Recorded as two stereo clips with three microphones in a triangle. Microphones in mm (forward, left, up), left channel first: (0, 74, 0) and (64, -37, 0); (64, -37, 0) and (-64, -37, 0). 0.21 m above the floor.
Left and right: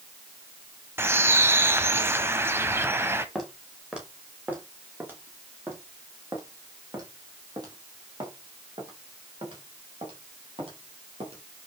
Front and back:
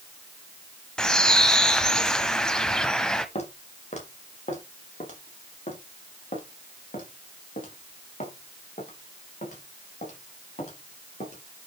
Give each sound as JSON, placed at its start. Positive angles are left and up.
{"t": 1.0, "sound": "a bird", "azimuth_deg": -75, "distance_m": 0.9}
{"t": 3.4, "sound": "footsteps", "azimuth_deg": 30, "distance_m": 3.5}